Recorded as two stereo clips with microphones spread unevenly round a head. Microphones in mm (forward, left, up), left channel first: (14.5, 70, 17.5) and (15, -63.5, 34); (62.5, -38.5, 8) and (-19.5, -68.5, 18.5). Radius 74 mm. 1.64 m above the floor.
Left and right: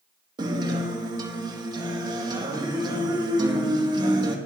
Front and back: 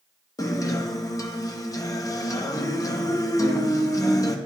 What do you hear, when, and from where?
0.4 s a guitar: 30° right, 0.9 m